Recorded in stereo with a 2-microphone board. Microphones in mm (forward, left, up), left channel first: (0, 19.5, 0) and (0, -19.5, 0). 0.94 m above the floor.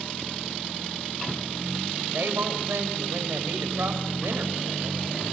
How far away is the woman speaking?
About 5 m.